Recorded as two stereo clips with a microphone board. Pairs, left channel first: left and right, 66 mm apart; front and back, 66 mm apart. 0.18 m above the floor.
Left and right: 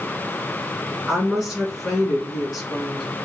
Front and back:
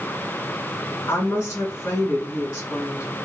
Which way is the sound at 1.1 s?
Straight ahead.